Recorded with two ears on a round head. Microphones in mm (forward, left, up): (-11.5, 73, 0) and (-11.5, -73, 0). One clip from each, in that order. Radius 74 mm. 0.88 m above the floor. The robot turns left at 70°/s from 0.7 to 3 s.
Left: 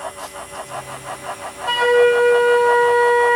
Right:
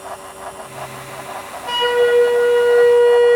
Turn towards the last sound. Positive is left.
turn(degrees=55)